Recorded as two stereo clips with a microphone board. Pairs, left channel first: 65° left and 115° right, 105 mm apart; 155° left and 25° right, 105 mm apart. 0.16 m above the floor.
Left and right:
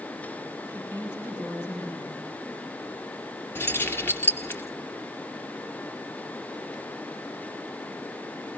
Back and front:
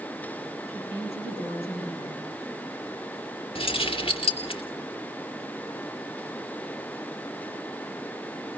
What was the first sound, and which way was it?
A woman speaking, 135° left.